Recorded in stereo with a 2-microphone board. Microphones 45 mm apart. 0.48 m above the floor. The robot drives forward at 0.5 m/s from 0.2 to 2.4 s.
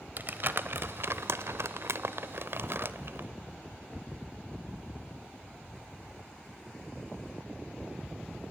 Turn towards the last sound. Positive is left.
turn(degrees=-60)  # may be behind; listen again after turning